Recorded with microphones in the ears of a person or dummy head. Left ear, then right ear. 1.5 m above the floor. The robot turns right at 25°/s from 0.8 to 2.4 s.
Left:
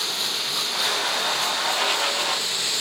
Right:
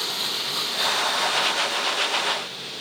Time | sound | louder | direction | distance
0.0 | running water | left 1 dB | 10° left | 1.2 m